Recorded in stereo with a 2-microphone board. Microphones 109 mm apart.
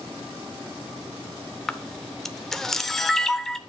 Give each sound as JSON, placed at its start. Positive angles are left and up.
{"t": 1.7, "sound": "a camera shutter", "side_deg": 5, "distance_m": 0.7}